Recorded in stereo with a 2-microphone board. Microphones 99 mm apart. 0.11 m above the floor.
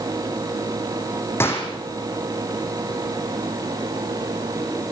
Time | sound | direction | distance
1.4 | a gunshot | 25° left (ahead or behind) | 4 m